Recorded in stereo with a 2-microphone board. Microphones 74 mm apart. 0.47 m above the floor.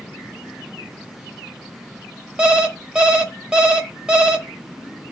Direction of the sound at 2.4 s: 10° right (ahead or behind).